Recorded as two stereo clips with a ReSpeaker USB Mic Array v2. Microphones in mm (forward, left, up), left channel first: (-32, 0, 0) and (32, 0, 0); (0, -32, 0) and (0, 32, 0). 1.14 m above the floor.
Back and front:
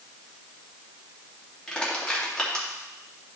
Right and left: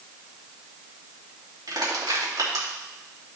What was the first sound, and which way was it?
Crushing, 105° left.